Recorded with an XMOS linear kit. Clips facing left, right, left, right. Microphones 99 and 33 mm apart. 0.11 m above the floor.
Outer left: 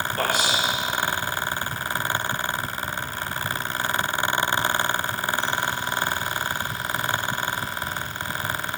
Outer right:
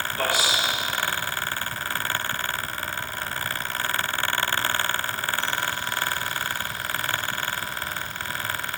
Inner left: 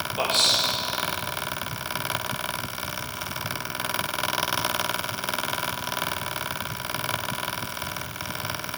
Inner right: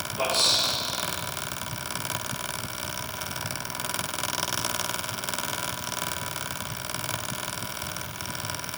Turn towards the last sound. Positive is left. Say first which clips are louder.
# outer left 1 dB, inner left 1 dB
turn(degrees=50)  # may be behind; listen again after turning